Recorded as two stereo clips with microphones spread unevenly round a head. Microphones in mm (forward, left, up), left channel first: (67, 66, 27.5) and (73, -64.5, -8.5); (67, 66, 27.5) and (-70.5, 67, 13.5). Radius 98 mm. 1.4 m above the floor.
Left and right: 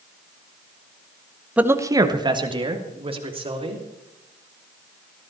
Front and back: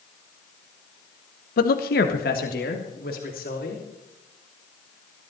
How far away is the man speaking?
About 0.9 m.